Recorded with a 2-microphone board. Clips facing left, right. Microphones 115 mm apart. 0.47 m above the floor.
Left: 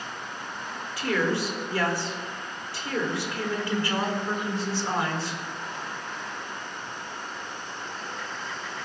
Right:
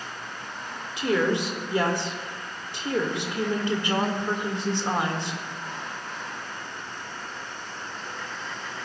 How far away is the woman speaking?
About 1.5 m.